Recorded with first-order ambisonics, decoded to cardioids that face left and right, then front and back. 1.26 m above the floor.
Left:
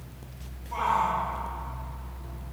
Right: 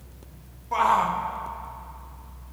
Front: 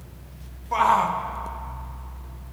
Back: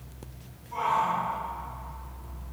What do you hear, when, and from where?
0.7 s a shout: 30° right, 1.5 m